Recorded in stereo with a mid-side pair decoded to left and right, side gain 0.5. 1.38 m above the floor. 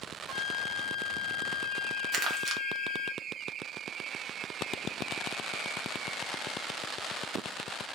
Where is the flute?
30° right, 1.3 m.